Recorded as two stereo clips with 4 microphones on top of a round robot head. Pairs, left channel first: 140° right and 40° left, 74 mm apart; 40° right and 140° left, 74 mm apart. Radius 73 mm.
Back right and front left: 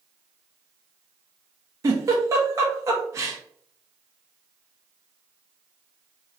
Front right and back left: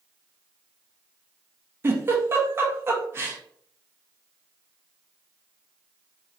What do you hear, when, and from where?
1.8 s a giggle: 85° left, 1.0 m